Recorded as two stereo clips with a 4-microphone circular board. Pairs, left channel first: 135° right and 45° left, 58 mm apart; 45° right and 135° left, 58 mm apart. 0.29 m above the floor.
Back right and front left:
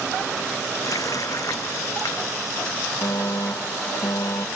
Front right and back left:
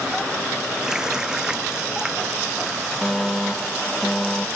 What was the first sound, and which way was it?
A running tap, 145° right.